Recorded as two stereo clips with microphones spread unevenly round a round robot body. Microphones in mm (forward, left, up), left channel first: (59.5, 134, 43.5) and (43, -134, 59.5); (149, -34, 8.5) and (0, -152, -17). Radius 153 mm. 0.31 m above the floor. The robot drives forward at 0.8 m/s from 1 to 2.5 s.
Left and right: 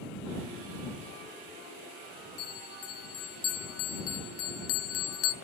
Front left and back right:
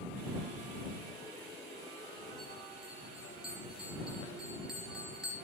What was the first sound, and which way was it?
A bell, 125° left.